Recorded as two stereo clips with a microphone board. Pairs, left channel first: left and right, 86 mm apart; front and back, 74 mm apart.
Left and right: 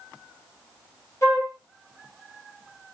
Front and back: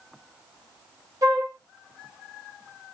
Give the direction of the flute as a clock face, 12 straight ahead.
7 o'clock.